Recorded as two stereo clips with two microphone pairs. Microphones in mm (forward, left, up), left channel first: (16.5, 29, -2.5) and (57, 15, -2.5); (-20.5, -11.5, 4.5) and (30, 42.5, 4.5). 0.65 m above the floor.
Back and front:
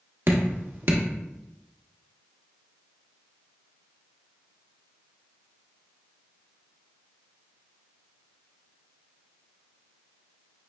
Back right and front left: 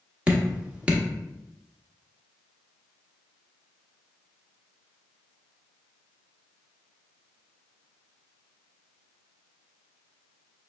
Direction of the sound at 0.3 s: 25° right.